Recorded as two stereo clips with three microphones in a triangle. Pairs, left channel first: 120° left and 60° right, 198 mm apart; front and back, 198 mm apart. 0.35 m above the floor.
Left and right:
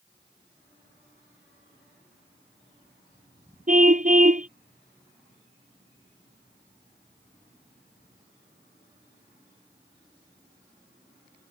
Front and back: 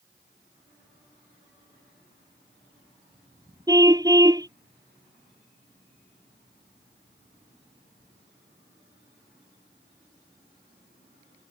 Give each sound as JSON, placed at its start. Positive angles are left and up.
{"t": 3.7, "sound": "a car horn", "azimuth_deg": -110}